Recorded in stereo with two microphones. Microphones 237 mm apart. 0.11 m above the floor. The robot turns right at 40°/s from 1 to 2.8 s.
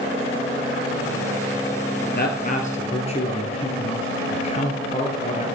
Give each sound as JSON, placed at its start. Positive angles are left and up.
{"t": 2.1, "sound": "a man speaking", "side_deg": 45, "distance_m": 1.9}